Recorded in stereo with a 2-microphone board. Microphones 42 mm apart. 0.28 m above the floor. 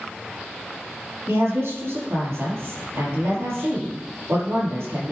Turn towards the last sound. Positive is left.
turn(degrees=-75)  # may be behind; listen again after turning